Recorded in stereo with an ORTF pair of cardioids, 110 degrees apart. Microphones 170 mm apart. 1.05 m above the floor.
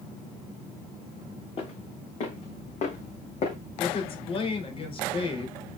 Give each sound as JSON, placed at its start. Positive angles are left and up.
{"t": 1.6, "sound": "footsteps", "azimuth_deg": 40, "distance_m": 4.0}
{"t": 3.8, "sound": "a woman speaking", "azimuth_deg": 35, "distance_m": 3.5}